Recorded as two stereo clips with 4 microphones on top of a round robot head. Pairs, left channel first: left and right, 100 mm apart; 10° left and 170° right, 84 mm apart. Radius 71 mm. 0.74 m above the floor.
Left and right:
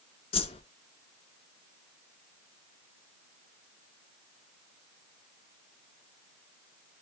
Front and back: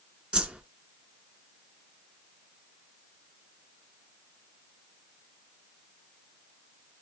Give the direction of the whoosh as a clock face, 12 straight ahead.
8 o'clock.